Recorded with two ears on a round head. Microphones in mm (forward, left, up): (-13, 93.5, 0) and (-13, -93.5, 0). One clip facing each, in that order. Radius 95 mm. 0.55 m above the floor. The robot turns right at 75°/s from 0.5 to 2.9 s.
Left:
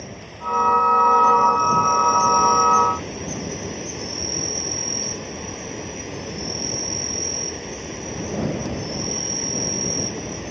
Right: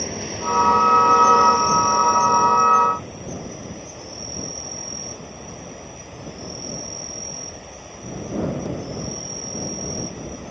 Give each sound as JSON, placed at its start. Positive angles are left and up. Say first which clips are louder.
{"t": 0.0, "sound": "an insect", "louder": "right 7 dB", "azimuth_deg": -115}